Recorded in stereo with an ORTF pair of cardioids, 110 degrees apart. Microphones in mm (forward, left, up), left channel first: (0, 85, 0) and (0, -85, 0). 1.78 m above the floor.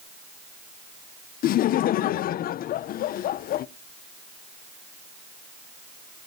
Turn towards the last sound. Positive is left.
turn(degrees=60)